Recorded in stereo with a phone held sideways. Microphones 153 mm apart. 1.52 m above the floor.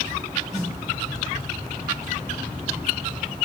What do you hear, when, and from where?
0.5 s a snare drum: centre (ahead or behind), 1.4 m